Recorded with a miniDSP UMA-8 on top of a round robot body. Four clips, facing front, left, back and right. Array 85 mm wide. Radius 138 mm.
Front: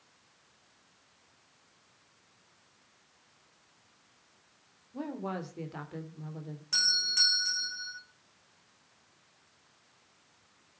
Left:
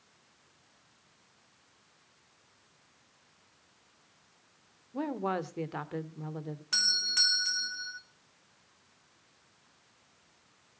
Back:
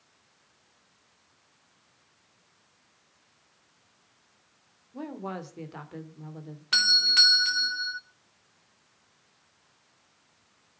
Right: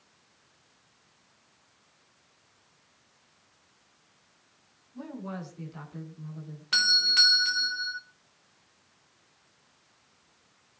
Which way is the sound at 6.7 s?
160° right.